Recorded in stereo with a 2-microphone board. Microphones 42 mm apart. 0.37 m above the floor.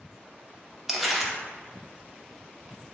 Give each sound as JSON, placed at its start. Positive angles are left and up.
{"t": 0.9, "sound": "crumpling", "side_deg": -5, "distance_m": 0.6}